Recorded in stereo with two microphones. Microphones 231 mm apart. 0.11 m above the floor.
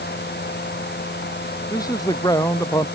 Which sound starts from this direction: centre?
A man speaking, at 1.7 s.